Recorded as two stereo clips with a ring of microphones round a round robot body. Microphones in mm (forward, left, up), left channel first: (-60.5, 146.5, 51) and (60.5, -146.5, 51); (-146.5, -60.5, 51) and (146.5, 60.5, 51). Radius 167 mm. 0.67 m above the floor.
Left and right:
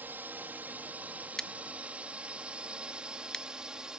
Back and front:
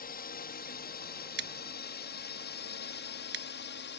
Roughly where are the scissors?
Ahead left.